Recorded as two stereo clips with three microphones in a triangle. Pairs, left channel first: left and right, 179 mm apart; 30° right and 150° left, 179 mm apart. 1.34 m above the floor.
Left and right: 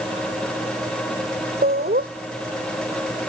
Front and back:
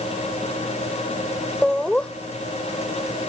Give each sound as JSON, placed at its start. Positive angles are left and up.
{"t": 1.6, "sound": "laughter", "azimuth_deg": -115}